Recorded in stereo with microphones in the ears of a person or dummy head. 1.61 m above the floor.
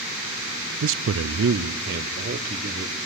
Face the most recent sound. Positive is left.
turn(degrees=-45)  # may be behind; listen again after turning